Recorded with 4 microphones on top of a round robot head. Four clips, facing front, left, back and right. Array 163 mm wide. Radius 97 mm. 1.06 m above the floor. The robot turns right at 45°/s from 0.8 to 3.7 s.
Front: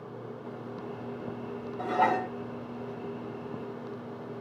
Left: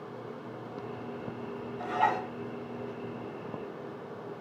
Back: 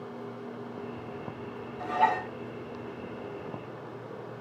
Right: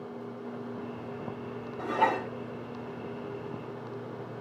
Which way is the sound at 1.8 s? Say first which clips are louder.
Right 1 dB, even; 40° right.